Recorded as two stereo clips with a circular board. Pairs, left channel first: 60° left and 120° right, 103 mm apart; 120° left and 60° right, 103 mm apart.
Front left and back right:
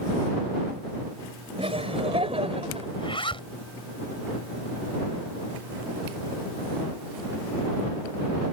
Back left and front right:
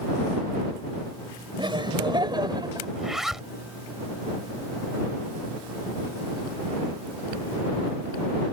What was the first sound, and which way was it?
Laughter, 100° right.